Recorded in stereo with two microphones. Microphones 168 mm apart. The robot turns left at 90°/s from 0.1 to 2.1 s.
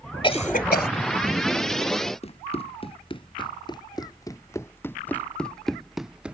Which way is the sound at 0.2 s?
30° left (ahead or behind).